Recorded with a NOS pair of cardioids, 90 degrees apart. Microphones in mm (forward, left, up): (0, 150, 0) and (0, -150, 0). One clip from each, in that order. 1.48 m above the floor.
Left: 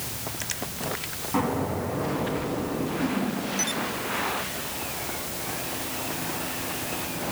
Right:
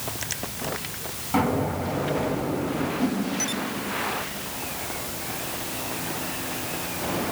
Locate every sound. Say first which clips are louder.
1.3 s an explosion: right 3 dB; 40° right, 7.5 m
3.0 s a whoosh: right 1 dB; 45° right, 6.5 m